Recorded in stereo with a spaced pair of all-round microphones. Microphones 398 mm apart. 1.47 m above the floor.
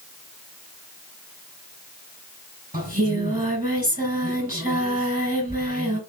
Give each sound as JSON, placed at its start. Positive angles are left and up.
{"t": 2.7, "sound": "singing", "side_deg": -20, "distance_m": 4.0}